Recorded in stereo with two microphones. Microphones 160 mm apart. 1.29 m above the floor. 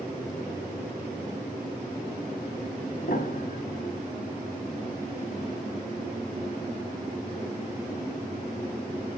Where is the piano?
65° left (ahead or behind), 2.5 m.